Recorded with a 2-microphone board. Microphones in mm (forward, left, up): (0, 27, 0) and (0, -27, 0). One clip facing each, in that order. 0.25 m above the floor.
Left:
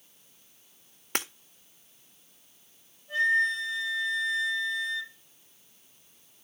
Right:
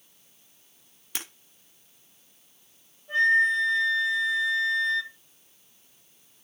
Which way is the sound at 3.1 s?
40° right (ahead or behind).